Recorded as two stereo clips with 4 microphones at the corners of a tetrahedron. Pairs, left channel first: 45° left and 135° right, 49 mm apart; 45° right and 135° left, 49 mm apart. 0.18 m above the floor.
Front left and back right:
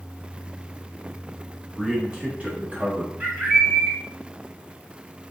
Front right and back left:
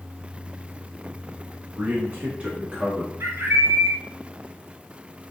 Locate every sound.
1.8 s a man speaking: 140° left, 1.2 m; by 3.1 s 145° right, 1.4 m
3.2 s a bird: 160° left, 1.1 m